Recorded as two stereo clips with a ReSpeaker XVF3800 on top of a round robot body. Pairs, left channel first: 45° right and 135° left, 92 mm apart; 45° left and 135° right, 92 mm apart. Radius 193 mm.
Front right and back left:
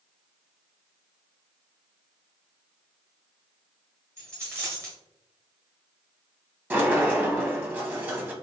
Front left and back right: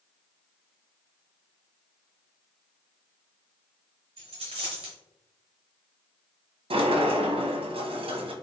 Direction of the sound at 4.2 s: 160° right.